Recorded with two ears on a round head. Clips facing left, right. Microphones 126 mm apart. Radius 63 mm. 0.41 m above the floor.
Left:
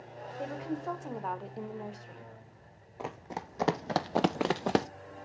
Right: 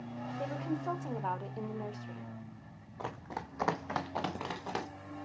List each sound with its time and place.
0.4 s a woman speaking: centre (ahead or behind), 1.1 m
3.0 s running footsteps: 15° left (ahead or behind), 1.7 m; by 4.9 s 60° left (ahead or behind), 1.0 m